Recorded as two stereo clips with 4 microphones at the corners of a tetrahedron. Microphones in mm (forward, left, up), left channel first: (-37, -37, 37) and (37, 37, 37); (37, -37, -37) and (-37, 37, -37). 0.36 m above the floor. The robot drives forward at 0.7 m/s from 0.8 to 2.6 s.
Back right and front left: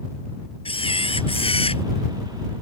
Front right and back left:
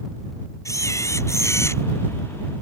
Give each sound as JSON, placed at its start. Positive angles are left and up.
{"t": 0.7, "sound": "a camera shutter", "azimuth_deg": -105}